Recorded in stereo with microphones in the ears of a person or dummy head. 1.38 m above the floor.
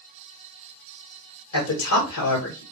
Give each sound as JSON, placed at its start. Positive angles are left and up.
{"t": 1.5, "sound": "a man speaking", "side_deg": 80, "distance_m": 1.1}